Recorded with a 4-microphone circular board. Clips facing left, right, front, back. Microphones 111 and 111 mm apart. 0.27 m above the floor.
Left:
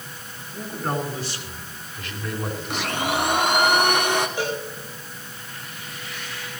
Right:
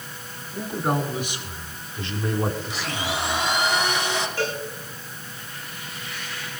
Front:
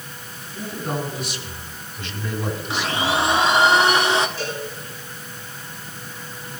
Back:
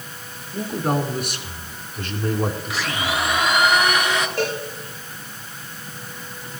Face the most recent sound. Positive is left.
turn(degrees=165)